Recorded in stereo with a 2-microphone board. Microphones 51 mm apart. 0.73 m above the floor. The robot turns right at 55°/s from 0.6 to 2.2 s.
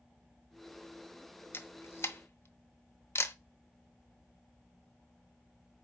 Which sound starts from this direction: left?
A camera shutter, at 1.5 s.